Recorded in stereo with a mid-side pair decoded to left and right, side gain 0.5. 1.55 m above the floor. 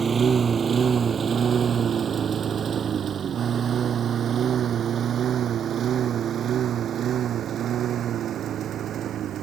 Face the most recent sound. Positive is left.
turn(degrees=-60)